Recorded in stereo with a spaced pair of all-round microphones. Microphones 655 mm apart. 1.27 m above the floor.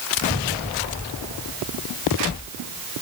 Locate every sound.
Only background noise.